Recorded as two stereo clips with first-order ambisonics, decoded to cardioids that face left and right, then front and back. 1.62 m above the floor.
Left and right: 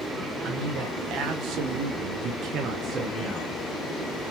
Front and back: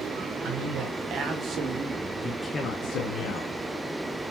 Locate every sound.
0.4 s a man speaking: 140° right, 1.4 m; by 3.5 s 5° right, 0.8 m